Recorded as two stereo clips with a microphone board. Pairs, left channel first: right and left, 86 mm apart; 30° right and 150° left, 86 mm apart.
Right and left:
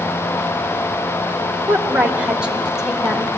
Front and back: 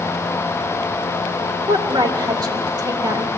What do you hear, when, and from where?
1.7 s a woman speaking: 160° left, 2 m; by 3.3 s 175° right, 1.8 m